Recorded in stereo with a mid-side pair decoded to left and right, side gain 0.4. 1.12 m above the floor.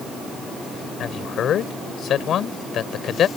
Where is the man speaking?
70° left.